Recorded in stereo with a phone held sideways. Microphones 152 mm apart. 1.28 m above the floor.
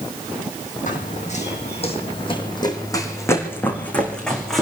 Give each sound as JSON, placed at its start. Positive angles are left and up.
{"t": 0.9, "sound": "running footsteps", "side_deg": 60, "distance_m": 4.0}